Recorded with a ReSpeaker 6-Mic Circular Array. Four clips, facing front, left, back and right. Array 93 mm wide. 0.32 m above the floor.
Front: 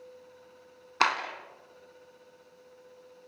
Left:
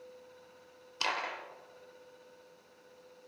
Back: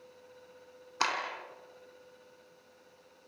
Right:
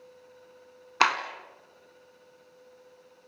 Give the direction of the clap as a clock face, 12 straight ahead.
2 o'clock.